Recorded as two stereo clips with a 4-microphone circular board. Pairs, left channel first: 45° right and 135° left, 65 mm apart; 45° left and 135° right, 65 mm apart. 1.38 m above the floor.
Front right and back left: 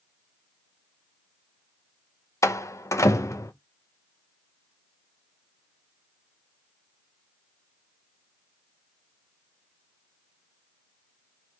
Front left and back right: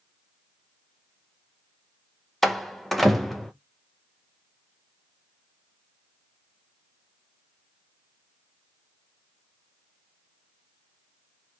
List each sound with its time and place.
2.4 s a door slam: 40° right, 0.6 m